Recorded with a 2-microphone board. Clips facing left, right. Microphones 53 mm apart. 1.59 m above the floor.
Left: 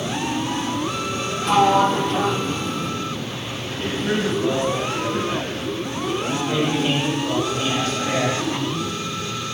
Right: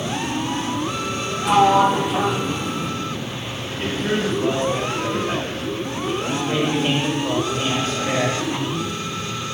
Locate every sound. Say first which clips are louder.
1.4 s a sliding door: right 2 dB; 5° right (ahead or behind), 0.8 m
3.8 s a man speaking: even; 30° right (ahead or behind), 7.5 m
6.3 s a man speaking: right 1 dB; 25° right (ahead or behind), 9 m